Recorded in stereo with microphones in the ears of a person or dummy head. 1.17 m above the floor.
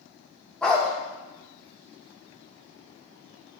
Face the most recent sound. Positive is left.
turn(degrees=5)  # may be behind; listen again after turning